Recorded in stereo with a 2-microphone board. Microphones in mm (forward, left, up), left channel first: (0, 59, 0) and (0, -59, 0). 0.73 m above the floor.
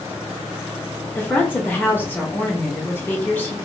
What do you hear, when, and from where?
1.1 s a woman speaking: 15° left (ahead or behind), 0.7 m